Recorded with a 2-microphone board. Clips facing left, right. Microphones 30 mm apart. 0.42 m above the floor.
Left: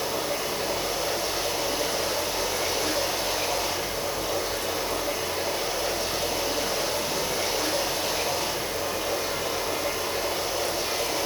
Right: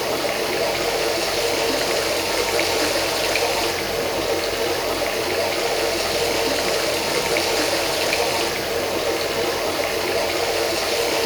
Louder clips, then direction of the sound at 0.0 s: Right 6 dB; 85° right.